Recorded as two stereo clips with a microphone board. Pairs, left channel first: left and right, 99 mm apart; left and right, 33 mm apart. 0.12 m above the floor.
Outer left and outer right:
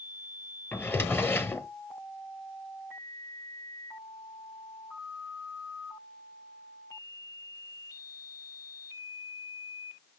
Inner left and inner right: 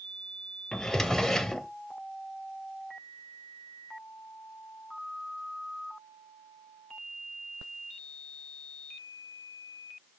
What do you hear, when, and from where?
0.7 s a drawer: 20° left (ahead or behind), 0.8 m